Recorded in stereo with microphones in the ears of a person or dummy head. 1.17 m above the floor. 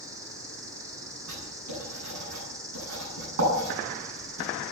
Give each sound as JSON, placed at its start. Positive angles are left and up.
{"t": 0.0, "sound": "an insect", "side_deg": -15, "distance_m": 2.0}
{"t": 1.3, "sound": "writing", "side_deg": -85, "distance_m": 9.0}